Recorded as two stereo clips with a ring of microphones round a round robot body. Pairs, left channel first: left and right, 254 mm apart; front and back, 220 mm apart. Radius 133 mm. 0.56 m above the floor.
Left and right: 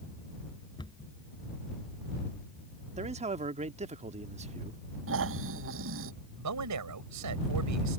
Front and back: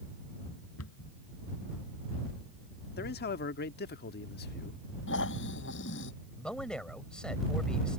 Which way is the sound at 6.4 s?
85° right.